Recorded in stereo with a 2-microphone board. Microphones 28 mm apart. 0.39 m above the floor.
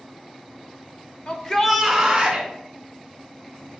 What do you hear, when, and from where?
1.3 s a shout: 35° left (ahead or behind), 1.0 m; by 2.5 s 25° right (ahead or behind), 1.8 m